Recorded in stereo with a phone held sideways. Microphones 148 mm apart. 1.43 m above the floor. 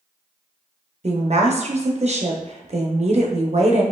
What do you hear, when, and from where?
1.0 s a woman speaking: 50° right (ahead or behind), 0.7 m